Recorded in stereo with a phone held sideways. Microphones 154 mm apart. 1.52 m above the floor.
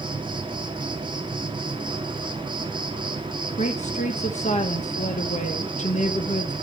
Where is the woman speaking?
50° left (ahead or behind), 1.1 m.